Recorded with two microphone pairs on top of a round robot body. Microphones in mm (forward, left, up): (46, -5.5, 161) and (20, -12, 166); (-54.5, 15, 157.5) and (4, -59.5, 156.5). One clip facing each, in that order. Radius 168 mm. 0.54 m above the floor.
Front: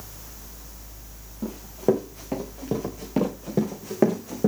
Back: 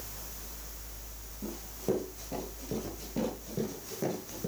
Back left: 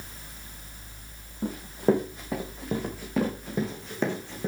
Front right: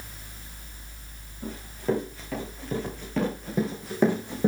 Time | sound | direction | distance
1.4 | running footsteps | 65° left | 4 m